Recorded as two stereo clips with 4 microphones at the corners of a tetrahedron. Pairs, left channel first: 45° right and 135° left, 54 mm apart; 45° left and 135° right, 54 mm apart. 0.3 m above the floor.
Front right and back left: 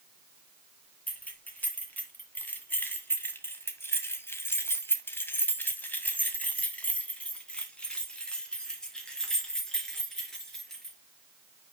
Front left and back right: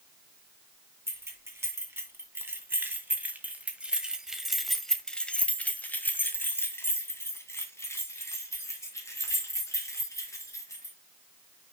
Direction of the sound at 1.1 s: 105° right.